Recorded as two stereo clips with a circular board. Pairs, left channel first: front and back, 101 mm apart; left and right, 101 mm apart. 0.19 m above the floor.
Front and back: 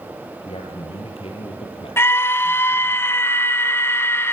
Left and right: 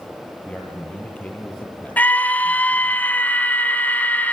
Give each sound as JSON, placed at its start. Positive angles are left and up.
{"t": 0.5, "sound": "a man speaking", "azimuth_deg": 15, "distance_m": 4.0}
{"t": 2.0, "sound": "a scream", "azimuth_deg": 35, "distance_m": 1.6}